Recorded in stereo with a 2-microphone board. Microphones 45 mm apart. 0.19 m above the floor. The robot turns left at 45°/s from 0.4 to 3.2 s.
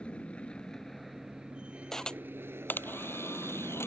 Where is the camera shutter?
10° left (ahead or behind); by 3.9 s 65° left (ahead or behind).